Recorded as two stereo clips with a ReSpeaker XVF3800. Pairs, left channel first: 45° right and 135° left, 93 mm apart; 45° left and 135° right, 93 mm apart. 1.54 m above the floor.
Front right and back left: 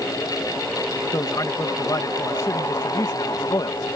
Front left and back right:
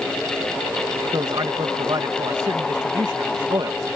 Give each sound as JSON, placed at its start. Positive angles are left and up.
{"t": 1.1, "sound": "a man speaking", "azimuth_deg": -90}